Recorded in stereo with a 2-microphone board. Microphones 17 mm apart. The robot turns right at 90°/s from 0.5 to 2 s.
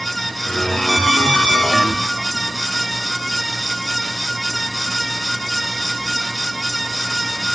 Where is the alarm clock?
165° right, 6 m; by 1.6 s 95° right, 6 m.